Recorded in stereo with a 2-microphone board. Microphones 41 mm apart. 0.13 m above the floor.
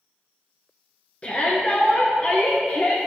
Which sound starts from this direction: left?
A shout, at 1.2 s.